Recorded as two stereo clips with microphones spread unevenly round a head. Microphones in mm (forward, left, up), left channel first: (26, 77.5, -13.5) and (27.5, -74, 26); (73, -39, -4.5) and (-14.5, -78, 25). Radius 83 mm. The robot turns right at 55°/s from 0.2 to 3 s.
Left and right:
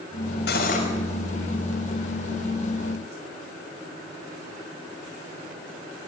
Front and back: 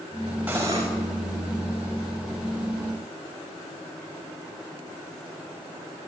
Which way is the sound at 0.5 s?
125° left.